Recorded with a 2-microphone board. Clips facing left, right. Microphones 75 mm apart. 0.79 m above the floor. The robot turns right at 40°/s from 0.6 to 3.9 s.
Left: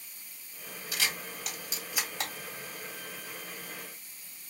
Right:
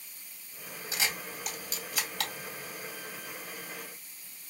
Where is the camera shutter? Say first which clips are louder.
Even; 25° right (ahead or behind), 1.6 m; by 2.3 s 30° left (ahead or behind), 1.6 m.